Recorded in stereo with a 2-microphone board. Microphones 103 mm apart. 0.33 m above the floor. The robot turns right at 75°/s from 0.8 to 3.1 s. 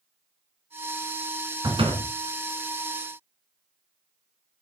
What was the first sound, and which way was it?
A door slam, 130° right.